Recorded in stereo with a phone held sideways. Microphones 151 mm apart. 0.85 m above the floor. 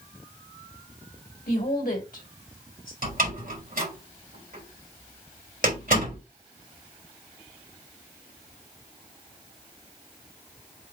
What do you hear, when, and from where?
1.5 s a woman speaking: 70° left (ahead or behind), 3 m
3.0 s a door slam: 70° right (ahead or behind), 3 m